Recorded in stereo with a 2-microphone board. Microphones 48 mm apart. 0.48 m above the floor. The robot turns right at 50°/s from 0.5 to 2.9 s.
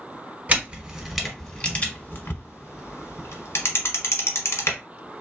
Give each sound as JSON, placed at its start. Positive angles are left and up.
{"t": 0.5, "sound": "a camera shutter", "side_deg": -35, "distance_m": 1.2}